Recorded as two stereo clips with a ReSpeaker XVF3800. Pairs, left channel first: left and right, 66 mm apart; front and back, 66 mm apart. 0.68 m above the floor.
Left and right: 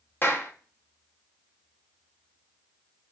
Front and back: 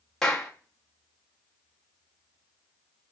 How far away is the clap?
About 0.6 m.